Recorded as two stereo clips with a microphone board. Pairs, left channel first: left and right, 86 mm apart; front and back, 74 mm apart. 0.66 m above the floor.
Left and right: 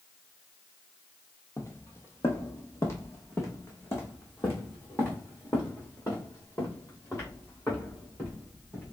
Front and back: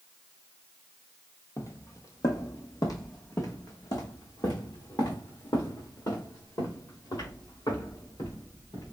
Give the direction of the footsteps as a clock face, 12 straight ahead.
11 o'clock.